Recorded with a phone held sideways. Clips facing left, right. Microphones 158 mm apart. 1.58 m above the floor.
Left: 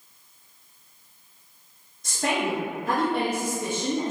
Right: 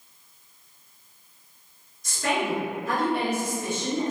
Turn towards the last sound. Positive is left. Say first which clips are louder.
# even
turn(degrees=55)  # may be behind; listen again after turning